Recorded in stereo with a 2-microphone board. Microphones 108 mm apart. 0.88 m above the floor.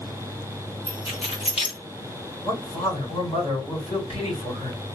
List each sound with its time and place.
0.9 s keys jangling: 65° left (ahead or behind), 1.3 m
2.4 s a man speaking: 75° left (ahead or behind), 2 m